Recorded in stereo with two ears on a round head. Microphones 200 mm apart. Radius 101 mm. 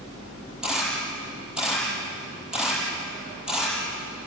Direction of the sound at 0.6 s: 5° right (ahead or behind).